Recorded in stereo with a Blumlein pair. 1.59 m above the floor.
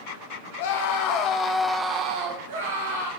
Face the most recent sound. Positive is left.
turn(degrees=-75)